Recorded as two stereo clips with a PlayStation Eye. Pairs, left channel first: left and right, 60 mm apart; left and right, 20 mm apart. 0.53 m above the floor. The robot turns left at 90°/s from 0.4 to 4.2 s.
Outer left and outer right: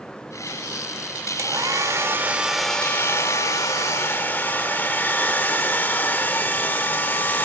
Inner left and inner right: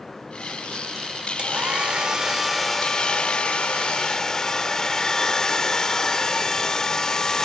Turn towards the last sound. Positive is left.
turn(degrees=35)